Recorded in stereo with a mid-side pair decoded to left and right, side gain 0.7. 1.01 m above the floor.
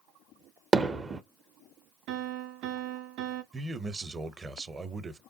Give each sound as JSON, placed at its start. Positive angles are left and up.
{"t": 0.7, "sound": "hammering", "azimuth_deg": -20, "distance_m": 0.6}
{"t": 2.1, "sound": "a piano", "azimuth_deg": -65, "distance_m": 0.5}
{"t": 3.5, "sound": "a man speaking", "azimuth_deg": -20, "distance_m": 0.7}